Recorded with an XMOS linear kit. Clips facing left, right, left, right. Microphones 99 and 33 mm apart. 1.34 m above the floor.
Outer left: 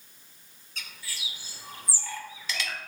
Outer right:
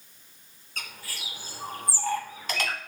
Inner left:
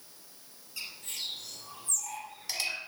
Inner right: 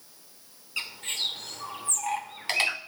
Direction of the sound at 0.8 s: 50° right (ahead or behind).